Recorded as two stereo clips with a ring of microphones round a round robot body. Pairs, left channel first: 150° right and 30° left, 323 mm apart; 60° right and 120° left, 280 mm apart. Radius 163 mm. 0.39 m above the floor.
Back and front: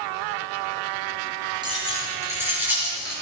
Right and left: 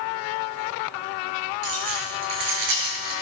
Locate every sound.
1.6 s keys jangling: 110° left, 5 m; by 3.1 s 120° left, 5 m